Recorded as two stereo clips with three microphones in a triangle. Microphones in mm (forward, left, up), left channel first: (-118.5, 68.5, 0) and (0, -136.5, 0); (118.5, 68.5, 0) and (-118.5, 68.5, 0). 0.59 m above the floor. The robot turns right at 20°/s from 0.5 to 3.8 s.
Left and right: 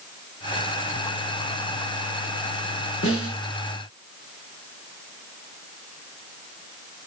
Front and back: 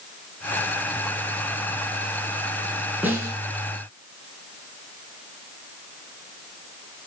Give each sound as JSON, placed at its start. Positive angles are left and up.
{"t": 3.0, "sound": "a snare drum", "azimuth_deg": 95, "distance_m": 7.0}